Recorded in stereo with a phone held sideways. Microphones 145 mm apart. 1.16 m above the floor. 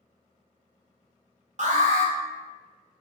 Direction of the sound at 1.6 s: 55° right (ahead or behind).